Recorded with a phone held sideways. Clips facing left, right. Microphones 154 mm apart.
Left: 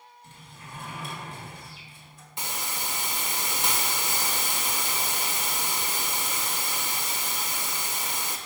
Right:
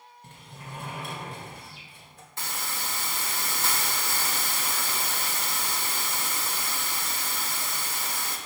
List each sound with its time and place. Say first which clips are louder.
0.2 s a sliding door: right 3 dB; 60° right (ahead or behind), 1.7 m
2.4 s a hiss: left 1 dB; 20° left (ahead or behind), 0.9 m